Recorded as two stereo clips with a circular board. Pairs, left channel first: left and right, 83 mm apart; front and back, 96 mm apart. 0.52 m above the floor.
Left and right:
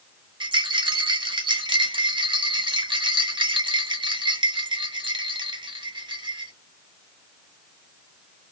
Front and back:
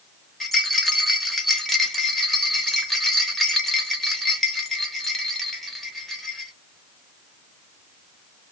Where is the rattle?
90° right, 0.6 m.